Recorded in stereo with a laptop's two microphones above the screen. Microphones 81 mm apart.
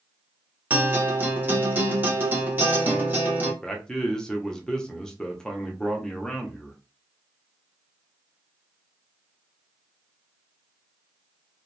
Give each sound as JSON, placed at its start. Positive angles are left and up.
{"t": 0.7, "sound": "a guitar", "side_deg": -25, "distance_m": 1.0}
{"t": 3.6, "sound": "a man speaking", "side_deg": 10, "distance_m": 0.5}